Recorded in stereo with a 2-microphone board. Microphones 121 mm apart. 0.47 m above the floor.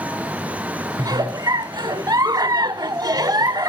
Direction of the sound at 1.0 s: 30° right (ahead or behind).